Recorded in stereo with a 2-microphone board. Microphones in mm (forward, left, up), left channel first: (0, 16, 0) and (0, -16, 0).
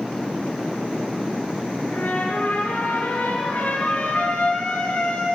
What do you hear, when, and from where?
1.9 s a trumpet: 85° left, 9 m